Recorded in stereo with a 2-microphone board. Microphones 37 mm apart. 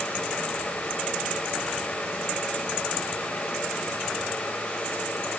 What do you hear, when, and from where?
Only background noise.